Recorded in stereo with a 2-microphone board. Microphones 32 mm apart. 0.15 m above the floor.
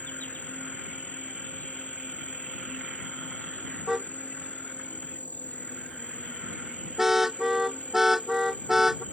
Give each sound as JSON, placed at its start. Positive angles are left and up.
{"t": 0.0, "sound": "an insect", "side_deg": 55}
{"t": 3.9, "sound": "a car horn", "side_deg": -10}